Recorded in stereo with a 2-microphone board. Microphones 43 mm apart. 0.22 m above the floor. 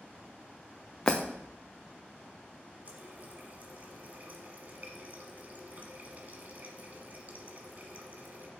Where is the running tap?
45° right (ahead or behind), 1.2 m.